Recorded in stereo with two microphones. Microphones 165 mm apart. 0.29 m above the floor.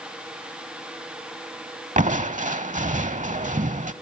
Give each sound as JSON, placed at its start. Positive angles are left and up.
{"t": 2.0, "sound": "crushing", "side_deg": -50, "distance_m": 0.7}